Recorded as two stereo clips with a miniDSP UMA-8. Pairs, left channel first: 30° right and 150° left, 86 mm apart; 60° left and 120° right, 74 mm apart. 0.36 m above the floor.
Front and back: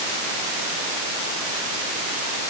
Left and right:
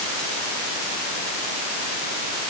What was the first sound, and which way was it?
Only background noise.